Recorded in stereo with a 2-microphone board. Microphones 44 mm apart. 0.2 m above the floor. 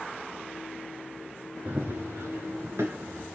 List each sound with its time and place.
1.6 s running footsteps: 50° right (ahead or behind), 0.9 m; by 3.3 s 65° right (ahead or behind), 2.0 m